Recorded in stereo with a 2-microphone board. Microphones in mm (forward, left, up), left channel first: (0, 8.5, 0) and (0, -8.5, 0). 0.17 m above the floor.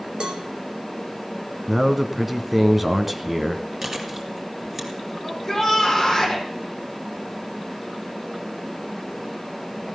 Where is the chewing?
25° right (ahead or behind), 3 m.